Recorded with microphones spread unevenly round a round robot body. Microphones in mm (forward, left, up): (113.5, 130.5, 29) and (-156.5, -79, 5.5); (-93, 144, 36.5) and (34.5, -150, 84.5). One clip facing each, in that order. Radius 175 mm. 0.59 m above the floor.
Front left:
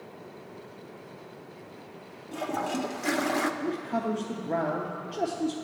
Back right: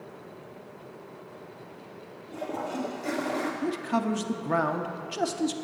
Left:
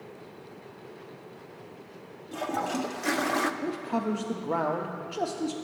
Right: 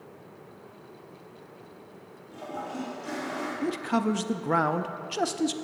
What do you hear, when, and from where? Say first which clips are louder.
2.3 s a toilet flushing: front left 2 dB, left 5 dB; 95° left, 0.7 m
3.6 s a man speaking: back right 2 dB, right 3 dB; 110° right, 0.7 m